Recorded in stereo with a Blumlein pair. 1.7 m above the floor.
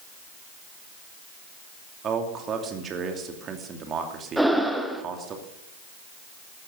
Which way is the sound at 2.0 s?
25° right.